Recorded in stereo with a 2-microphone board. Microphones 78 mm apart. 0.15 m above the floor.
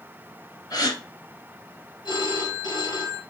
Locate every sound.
0.7 s a gasp: 50° left (ahead or behind), 2 m
2.0 s a phone ringing: 70° left (ahead or behind), 1.9 m